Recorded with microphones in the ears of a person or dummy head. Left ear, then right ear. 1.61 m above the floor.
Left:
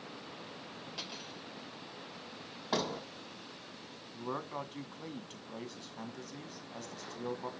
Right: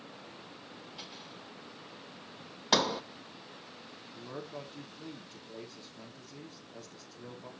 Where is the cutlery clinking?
60° left (ahead or behind), 4.5 m.